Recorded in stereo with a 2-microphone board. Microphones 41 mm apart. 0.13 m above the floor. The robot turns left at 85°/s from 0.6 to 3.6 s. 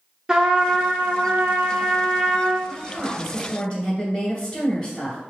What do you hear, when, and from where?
0.3 s a trumpet: 30° right, 1.1 m; by 2.6 s 165° left, 1.1 m
2.7 s a woman speaking: 125° right, 1.9 m; by 5.2 s 160° left, 1.9 m